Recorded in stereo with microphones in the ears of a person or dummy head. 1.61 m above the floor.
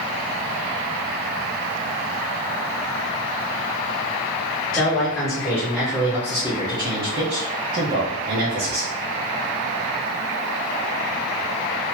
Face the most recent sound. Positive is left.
turn(degrees=-75)  # may be behind; listen again after turning